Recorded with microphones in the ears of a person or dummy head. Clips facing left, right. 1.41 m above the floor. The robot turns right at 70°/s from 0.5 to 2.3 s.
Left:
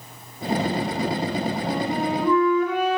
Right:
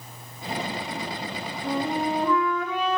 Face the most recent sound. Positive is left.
turn(degrees=165)